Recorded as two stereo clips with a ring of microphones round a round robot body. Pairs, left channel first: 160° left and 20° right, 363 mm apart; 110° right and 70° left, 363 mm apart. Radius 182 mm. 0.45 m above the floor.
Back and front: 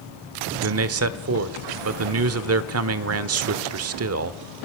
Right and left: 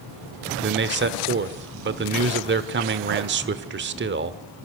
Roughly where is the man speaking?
Ahead.